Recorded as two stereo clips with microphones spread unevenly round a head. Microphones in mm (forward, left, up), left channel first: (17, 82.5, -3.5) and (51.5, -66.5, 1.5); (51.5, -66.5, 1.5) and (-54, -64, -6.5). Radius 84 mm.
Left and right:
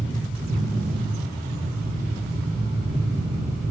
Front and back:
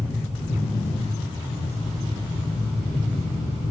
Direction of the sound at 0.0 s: 65° right.